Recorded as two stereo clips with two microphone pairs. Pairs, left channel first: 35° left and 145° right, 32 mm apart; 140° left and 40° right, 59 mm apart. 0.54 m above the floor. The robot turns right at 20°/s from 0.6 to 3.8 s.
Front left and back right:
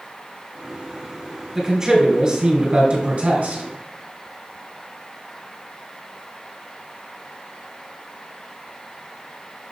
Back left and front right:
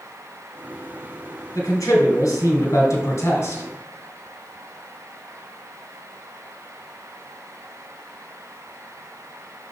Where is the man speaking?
130° left, 2 m; by 3.6 s 175° left, 2 m.